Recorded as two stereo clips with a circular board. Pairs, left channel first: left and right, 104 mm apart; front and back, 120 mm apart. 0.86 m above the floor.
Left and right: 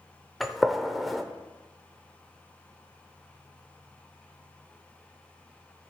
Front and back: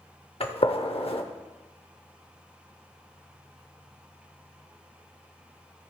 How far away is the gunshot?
About 0.7 m.